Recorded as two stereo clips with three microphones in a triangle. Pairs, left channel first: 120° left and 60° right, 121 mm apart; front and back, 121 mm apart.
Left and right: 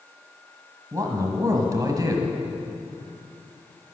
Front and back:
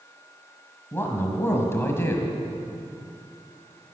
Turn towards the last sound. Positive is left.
turn(degrees=-50)